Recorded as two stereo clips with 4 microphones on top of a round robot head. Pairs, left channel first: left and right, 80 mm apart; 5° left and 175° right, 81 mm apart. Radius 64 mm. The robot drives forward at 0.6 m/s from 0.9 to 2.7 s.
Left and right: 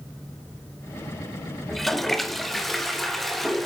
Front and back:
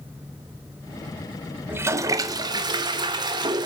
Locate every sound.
1.7 s a toilet flushing: 175° left, 0.6 m; by 3.7 s straight behind, 1.0 m